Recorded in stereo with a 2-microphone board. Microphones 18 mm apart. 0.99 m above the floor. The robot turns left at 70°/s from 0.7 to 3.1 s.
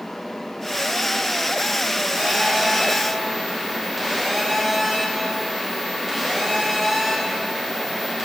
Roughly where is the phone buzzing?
Right.